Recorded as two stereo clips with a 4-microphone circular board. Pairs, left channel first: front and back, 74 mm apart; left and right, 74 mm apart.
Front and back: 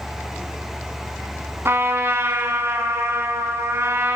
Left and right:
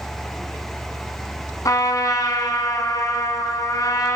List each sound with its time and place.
1.6 s a trumpet: 125° left, 1.4 m